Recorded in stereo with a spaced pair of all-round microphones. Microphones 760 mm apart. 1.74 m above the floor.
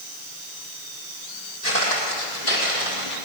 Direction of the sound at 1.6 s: 60° left (ahead or behind).